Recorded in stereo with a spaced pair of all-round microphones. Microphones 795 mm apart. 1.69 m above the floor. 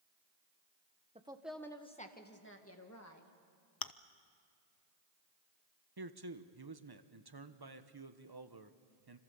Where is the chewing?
30° left (ahead or behind), 0.6 m.